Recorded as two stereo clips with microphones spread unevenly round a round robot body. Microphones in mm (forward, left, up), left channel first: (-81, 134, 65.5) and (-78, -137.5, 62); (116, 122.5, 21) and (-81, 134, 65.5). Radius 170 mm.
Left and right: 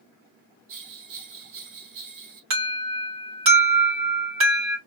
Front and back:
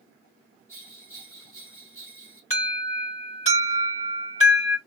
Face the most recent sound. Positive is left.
turn(degrees=-50)